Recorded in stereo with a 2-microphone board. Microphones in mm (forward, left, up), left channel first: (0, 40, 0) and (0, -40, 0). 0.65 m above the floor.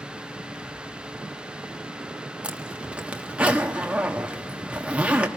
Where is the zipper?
15° right (ahead or behind), 1.4 m.